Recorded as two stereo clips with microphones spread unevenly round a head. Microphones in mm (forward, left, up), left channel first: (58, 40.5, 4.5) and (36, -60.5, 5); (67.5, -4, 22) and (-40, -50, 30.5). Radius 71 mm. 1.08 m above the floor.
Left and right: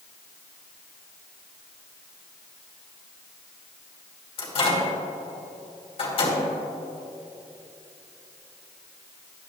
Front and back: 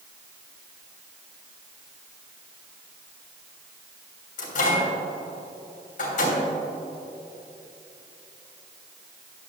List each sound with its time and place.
4.4 s a microwave: 45° left, 3 m